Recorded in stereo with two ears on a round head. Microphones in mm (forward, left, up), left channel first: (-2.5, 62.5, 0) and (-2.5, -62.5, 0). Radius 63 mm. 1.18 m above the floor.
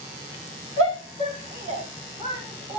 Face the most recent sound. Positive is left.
turn(degrees=-40)  # may be behind; listen again after turning